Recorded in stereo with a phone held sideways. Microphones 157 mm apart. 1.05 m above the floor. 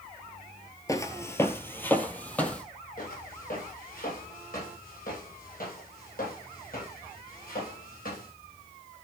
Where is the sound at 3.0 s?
60° left (ahead or behind), 9.5 m; by 8.3 s 65° left (ahead or behind), 12 m.